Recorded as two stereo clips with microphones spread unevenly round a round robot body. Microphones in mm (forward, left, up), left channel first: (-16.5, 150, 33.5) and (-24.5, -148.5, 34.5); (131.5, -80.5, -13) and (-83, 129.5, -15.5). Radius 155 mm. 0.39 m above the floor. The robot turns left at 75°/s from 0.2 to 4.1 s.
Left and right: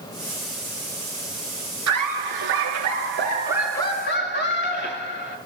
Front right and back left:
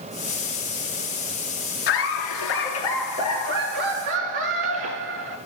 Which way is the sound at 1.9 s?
50° right.